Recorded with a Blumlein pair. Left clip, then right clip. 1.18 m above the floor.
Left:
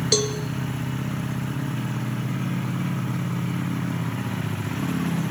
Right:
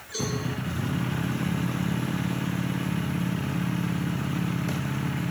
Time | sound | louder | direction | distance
0.1 | a cowbell | left 9 dB | 45° left | 0.9 m